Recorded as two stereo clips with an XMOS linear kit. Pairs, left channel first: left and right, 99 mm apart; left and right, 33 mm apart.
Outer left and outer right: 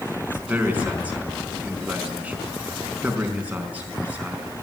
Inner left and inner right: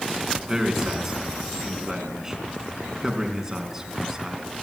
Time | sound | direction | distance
0.4 | a man speaking | 15° right (ahead or behind) | 4 m